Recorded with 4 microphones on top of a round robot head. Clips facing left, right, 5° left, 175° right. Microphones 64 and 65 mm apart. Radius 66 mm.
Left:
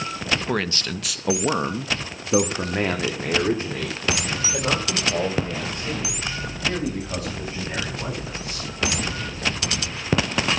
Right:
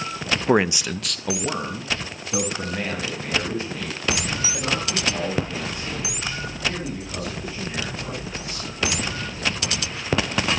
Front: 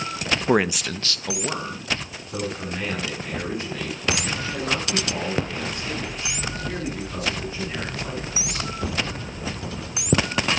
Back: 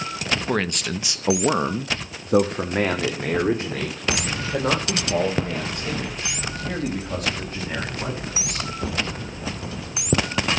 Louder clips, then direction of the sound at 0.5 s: Right 6 dB, front 6 dB; 50° right.